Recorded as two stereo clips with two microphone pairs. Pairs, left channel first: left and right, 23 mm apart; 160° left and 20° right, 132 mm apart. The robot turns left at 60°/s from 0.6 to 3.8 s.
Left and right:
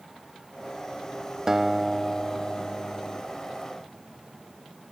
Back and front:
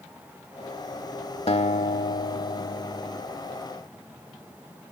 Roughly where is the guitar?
Behind.